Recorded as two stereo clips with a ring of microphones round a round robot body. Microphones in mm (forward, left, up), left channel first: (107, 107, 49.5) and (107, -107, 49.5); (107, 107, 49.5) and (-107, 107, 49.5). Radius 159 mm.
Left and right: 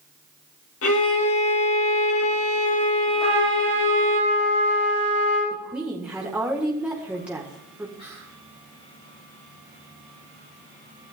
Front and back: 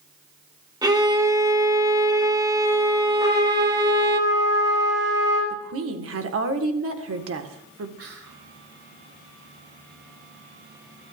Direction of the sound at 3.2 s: 105° left.